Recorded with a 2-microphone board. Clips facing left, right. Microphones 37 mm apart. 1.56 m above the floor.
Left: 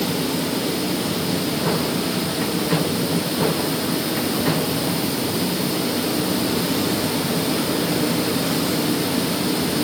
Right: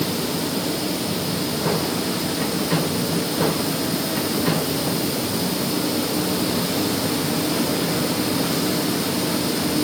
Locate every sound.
Only background noise.